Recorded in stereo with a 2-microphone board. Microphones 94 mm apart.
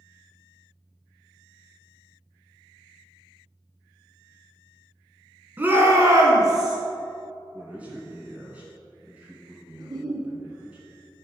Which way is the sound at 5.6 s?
20° right (ahead or behind).